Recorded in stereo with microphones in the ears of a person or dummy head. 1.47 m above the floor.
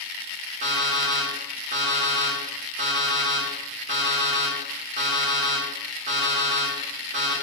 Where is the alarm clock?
30° right (ahead or behind), 1.2 m.